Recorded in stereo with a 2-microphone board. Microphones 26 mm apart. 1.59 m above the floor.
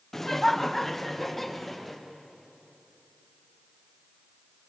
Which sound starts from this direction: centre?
Laughter, at 0.1 s.